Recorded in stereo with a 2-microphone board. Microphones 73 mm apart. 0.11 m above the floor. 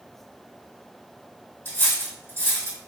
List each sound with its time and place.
1.6 s cutlery clinking: 30° left (ahead or behind), 2.0 m